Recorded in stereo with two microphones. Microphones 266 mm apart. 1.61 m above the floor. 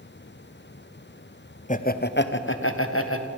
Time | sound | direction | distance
1.7 | laughter | 25° left (ahead or behind) | 0.9 m